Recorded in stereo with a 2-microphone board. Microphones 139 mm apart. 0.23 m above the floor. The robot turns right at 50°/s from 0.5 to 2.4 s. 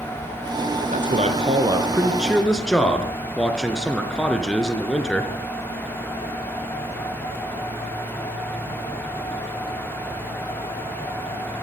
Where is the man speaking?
70° right, 3.5 m; by 5.3 s 5° left, 3.5 m.